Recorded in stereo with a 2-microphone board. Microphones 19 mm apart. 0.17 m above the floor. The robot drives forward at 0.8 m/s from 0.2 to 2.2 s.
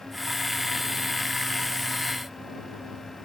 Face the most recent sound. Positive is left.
No sound to turn to.